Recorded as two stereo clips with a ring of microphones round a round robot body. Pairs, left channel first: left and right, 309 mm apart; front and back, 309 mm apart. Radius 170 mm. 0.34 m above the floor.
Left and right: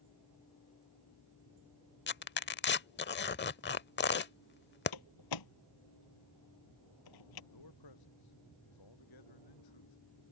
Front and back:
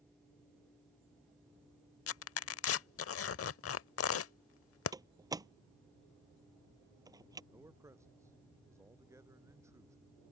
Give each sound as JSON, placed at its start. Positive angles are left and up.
{"t": 2.1, "sound": "tearing paper", "azimuth_deg": 40}
{"t": 4.9, "sound": "a door slam", "azimuth_deg": 100}
{"t": 7.5, "sound": "a man speaking", "azimuth_deg": 100}